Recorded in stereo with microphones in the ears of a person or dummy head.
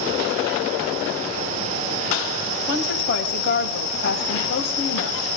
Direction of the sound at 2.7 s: 75° left (ahead or behind).